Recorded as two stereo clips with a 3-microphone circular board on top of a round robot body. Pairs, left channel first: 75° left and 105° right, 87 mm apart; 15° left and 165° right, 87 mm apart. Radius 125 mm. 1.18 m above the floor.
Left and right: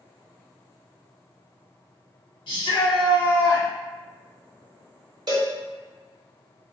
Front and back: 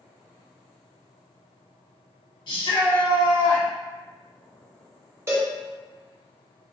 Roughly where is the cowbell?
Behind right.